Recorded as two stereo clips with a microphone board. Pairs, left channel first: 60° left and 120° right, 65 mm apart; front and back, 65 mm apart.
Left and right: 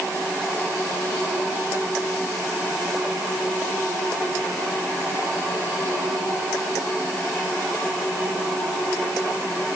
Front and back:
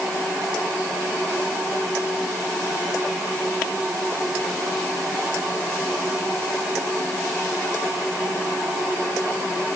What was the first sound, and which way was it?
Only background noise.